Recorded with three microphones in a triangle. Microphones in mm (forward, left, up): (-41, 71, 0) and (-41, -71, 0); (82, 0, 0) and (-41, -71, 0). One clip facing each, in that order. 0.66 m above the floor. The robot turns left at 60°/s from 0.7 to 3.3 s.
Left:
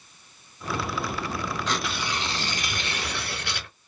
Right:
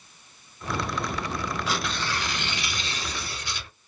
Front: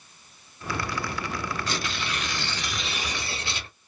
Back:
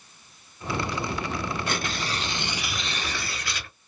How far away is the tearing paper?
About 0.6 m.